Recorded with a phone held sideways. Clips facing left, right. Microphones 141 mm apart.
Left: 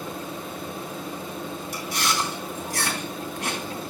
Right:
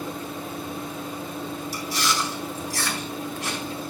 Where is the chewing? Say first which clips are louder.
Even; 55° left (ahead or behind), 4 m.